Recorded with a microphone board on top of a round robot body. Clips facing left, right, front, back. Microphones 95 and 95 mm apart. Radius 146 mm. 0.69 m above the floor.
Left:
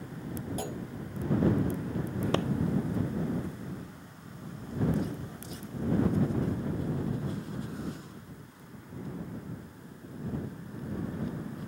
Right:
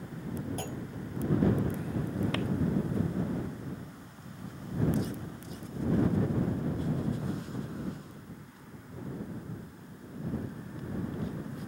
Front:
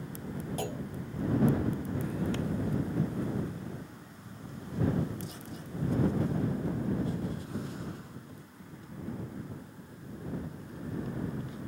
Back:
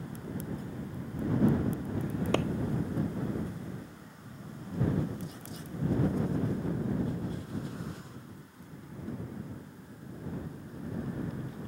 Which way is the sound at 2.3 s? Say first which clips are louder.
Left 8 dB, back 6 dB; 150° left.